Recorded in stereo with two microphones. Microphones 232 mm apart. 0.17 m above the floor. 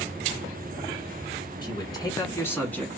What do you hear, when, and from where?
1.6 s a man speaking: 20° left (ahead or behind), 2 m; by 2.9 s 5° left (ahead or behind), 1.7 m